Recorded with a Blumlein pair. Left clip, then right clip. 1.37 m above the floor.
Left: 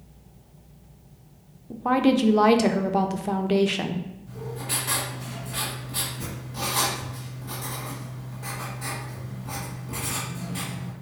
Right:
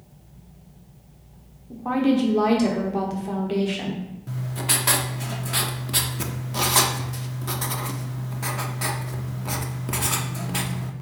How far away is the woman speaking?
About 0.5 m.